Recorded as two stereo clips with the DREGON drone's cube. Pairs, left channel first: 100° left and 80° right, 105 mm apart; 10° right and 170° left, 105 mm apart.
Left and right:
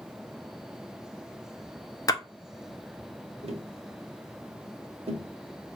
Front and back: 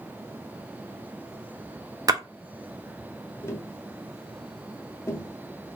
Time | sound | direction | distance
2.1 | a splash | 130° left | 0.6 m
3.4 | tapping | 75° right | 0.8 m